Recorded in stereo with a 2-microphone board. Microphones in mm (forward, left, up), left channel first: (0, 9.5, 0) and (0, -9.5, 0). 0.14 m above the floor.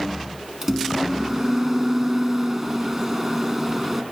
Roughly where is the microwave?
Centre.